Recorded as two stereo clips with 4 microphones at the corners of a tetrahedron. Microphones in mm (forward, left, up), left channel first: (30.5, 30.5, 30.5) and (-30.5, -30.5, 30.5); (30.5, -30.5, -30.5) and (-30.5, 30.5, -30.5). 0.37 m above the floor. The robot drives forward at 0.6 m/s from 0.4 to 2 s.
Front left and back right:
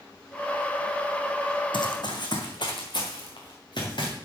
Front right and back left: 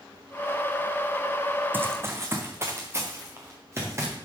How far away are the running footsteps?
About 1.2 m.